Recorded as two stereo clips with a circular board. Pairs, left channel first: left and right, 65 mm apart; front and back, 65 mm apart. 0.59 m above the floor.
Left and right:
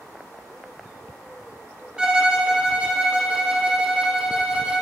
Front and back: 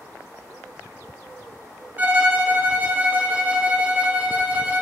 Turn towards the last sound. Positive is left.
turn(degrees=-155)